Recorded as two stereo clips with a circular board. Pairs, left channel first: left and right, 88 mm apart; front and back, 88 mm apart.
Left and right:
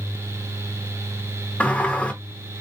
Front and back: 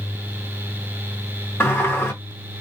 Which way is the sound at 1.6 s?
30° left.